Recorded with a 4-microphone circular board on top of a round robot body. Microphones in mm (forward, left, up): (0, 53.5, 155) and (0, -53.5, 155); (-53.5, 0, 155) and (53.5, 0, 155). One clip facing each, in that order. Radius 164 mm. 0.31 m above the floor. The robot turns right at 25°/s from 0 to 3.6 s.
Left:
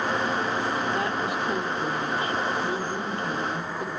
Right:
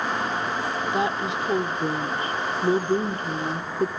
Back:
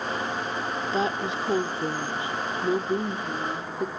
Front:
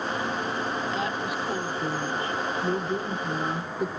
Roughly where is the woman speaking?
Behind right.